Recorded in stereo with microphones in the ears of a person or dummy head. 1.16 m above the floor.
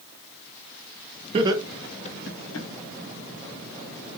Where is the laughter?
35° right (ahead or behind), 0.8 m; by 2.7 s 65° left (ahead or behind), 1.2 m.